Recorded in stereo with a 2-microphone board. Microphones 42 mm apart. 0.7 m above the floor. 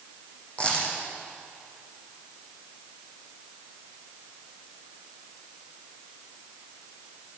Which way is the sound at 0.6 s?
30° left (ahead or behind).